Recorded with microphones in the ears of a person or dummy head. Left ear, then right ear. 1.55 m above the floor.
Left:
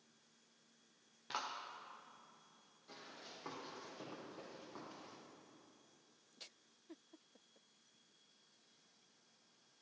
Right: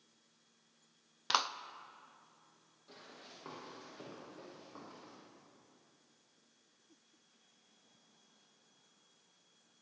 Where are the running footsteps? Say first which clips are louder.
Even; centre (ahead or behind), 4 m; by 5.2 s 5° right (ahead or behind), 5 m.